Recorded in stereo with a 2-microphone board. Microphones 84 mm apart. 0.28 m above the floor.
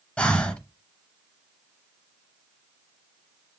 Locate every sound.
0.2 s breathing: 15° left (ahead or behind), 0.8 m